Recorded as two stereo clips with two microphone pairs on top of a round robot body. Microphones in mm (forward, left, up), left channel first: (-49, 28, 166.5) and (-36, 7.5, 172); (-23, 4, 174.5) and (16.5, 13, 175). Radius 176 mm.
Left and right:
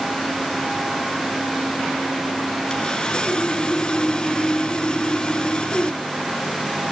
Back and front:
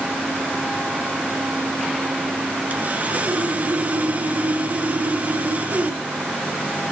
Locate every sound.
2.7 s sawing: 65° left, 2 m